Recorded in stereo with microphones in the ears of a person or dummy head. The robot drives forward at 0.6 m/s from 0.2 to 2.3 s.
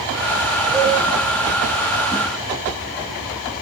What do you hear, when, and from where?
0.7 s a cowbell: centre (ahead or behind), 3 m